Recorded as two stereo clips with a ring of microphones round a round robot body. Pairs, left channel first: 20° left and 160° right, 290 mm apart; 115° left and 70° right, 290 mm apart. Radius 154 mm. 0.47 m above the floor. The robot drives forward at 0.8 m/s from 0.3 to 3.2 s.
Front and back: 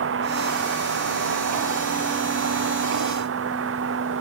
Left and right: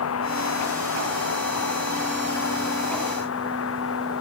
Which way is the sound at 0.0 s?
155° left.